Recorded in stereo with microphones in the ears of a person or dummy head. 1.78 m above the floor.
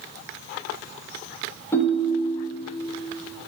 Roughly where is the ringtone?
Centre.